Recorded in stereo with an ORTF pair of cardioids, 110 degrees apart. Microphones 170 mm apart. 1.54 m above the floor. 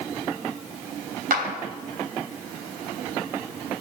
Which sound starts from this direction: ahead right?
A clap, at 1.3 s.